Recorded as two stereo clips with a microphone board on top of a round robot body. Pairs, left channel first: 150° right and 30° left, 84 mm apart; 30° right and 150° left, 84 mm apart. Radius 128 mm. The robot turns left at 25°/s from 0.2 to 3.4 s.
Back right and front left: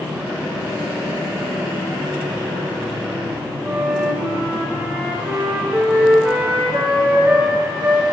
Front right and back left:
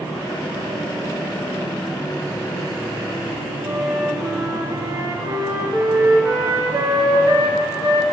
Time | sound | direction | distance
3.6 | a flute | 105° left | 2 m